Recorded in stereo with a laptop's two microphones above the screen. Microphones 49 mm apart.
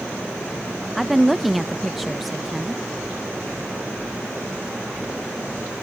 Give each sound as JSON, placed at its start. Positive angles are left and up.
{"t": 0.9, "sound": "a woman speaking", "side_deg": -5, "distance_m": 0.5}